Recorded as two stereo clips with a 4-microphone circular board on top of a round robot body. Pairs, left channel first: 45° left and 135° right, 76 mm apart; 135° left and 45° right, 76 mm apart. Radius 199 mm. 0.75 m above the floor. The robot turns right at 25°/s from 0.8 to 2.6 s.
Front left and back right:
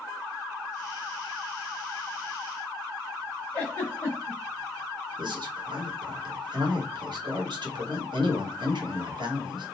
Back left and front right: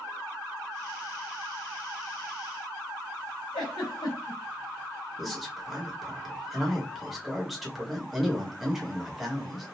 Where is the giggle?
110° left, 0.9 m.